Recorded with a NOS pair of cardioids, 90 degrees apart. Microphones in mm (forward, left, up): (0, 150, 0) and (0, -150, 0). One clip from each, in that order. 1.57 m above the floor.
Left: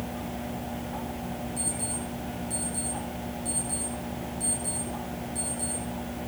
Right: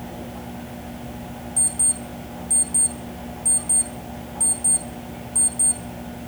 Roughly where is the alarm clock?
Ahead right.